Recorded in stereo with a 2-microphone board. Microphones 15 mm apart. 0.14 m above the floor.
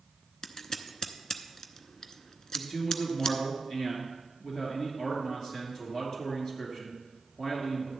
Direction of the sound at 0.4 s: 40° left (ahead or behind).